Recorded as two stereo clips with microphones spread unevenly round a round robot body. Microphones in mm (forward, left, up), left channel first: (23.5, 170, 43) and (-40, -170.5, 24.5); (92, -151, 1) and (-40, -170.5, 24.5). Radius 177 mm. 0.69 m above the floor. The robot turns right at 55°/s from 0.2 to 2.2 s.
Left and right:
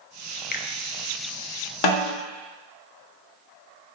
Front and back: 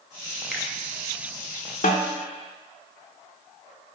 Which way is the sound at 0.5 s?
90° left.